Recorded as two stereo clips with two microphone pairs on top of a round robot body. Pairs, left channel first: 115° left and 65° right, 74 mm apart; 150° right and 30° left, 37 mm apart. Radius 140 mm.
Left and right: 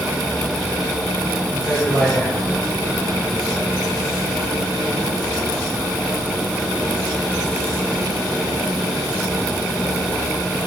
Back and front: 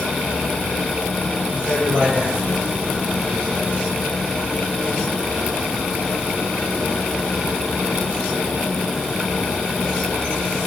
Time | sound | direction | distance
1.5 | a man speaking | 50° left | 5.5 m